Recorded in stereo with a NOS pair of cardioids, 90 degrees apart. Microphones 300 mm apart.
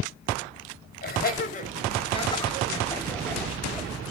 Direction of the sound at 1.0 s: 30° left.